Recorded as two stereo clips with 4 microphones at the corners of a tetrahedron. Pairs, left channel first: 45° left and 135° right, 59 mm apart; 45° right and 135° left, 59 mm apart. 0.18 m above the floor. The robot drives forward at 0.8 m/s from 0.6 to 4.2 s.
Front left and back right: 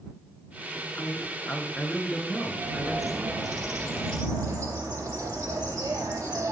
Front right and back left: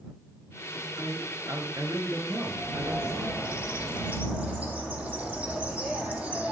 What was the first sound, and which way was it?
A man speaking, 115° left.